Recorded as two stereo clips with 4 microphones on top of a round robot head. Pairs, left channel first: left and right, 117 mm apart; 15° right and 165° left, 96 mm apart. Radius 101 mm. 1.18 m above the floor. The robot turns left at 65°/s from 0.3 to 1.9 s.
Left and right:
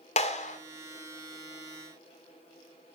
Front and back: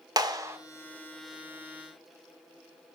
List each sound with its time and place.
0.2 s a clap: 115° left, 1.4 m; by 0.6 s 100° left, 1.4 m